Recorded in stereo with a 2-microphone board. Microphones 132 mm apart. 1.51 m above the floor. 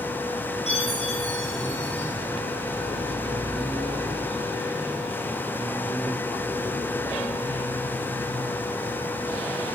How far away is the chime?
About 5 m.